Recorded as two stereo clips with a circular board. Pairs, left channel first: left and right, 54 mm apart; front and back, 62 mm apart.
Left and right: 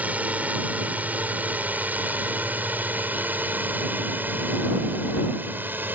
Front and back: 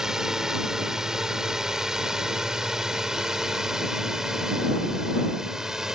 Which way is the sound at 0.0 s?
105° right.